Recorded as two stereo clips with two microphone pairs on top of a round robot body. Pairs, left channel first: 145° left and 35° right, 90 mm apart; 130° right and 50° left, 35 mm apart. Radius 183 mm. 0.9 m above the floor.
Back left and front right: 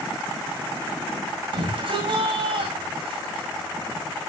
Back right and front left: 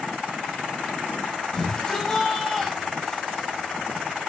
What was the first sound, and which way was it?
A shout, 55° right.